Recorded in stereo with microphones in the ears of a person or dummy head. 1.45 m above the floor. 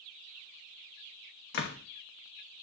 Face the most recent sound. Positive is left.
turn(degrees=60)  # may be behind; listen again after turning